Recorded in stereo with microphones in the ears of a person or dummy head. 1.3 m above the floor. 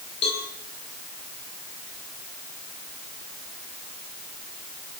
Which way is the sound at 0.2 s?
35° left (ahead or behind).